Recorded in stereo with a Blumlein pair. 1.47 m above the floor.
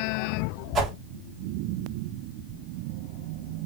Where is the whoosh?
25° right, 4 m.